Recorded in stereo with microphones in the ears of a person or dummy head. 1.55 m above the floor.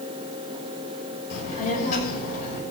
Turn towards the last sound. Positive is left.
turn(degrees=45)  # may be behind; listen again after turning